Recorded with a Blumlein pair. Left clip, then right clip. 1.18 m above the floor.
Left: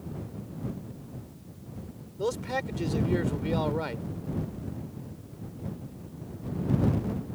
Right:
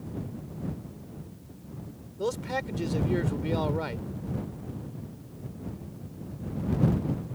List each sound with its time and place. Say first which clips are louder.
2.2 s a man speaking: even; straight ahead